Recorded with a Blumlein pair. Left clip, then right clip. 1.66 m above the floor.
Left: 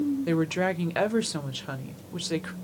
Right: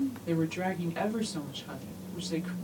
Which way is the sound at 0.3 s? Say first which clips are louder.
Left 4 dB; 35° left.